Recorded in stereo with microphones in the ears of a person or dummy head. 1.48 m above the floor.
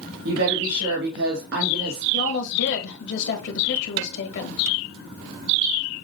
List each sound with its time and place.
0.2 s a woman speaking: 60° right (ahead or behind), 2.5 m
2.1 s a woman speaking: 70° left (ahead or behind), 1.6 m